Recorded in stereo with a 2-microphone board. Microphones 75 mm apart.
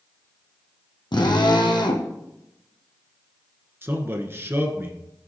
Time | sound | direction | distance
1.1 | a drill | 75° left (ahead or behind) | 2.0 m
3.8 | a man speaking | 30° right (ahead or behind) | 1.5 m